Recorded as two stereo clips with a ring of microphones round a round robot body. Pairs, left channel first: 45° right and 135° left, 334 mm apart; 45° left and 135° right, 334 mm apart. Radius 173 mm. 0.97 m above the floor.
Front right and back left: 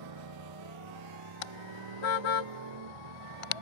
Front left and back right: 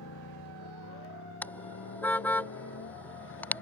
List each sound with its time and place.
0.0 s a motorcycle: 100° left
1.4 s a car horn: 40° right